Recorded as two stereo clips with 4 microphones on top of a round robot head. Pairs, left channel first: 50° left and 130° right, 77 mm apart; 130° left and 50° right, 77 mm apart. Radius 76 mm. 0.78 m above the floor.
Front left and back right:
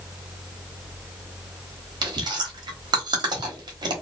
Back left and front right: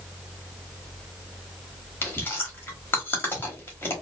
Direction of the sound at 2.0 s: 165° right.